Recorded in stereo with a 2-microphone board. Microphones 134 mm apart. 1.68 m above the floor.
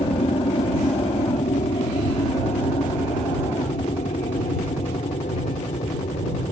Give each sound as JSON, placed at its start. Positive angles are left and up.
{"t": 0.0, "sound": "an aircraft", "side_deg": 50}